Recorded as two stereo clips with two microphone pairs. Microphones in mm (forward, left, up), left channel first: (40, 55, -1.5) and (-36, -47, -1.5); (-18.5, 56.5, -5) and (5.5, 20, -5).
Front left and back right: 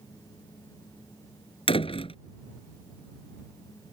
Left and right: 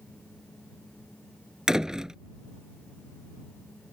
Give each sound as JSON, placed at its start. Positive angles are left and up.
{"t": 1.7, "sound": "a door slam", "azimuth_deg": 20}